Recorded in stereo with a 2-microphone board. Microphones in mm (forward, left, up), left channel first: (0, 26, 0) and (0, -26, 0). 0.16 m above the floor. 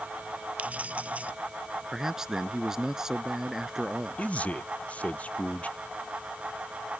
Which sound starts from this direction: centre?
A man speaking, at 1.9 s.